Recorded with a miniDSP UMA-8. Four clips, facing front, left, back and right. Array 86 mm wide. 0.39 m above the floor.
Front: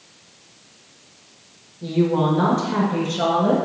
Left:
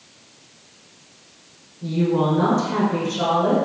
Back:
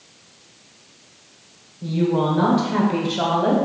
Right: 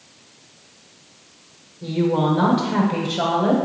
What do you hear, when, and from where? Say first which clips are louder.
1.8 s a woman speaking: even, front 1 dB; 60° right, 0.9 m; by 3.6 s 160° right, 1.2 m